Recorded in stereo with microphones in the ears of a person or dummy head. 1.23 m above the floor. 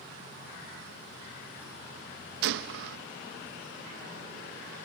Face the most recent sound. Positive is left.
turn(degrees=-65)  # may be behind; listen again after turning